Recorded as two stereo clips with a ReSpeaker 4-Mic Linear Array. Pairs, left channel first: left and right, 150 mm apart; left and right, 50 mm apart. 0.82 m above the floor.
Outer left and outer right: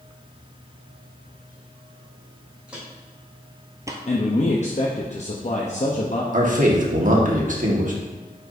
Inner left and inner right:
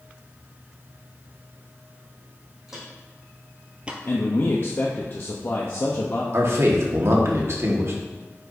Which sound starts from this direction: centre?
Footsteps, at 2.7 s.